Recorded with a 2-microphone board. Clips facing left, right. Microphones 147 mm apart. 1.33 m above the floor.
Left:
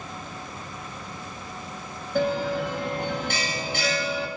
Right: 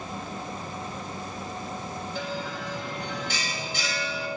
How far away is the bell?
About 1.8 m.